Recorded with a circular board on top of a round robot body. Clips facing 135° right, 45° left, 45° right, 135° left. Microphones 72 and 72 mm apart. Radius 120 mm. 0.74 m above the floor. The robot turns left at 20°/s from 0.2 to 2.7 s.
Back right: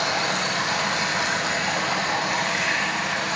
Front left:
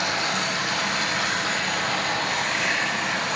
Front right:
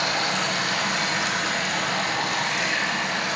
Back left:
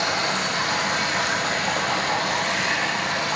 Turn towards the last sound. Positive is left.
turn(degrees=140)